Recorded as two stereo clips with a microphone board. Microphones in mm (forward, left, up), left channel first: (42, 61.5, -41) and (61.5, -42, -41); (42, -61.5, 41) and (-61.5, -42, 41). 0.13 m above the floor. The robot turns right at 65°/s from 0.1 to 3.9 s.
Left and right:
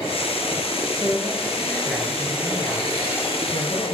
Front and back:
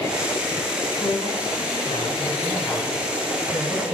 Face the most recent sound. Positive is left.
turn(degrees=145)